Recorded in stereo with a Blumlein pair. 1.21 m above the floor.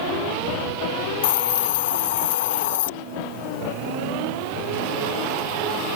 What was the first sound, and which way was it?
A hiss, 55° left.